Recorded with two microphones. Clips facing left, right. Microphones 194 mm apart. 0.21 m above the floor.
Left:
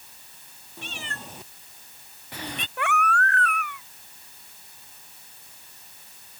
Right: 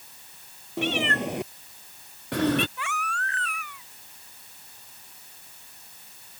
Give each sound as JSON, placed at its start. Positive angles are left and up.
{"t": 0.8, "sound": "a cat meowing", "side_deg": -80}
{"t": 2.8, "sound": "a baby crying", "side_deg": 60}